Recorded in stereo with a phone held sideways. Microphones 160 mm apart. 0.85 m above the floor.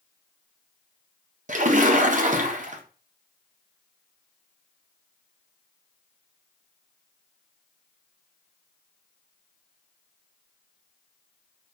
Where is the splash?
55° right (ahead or behind), 0.5 m.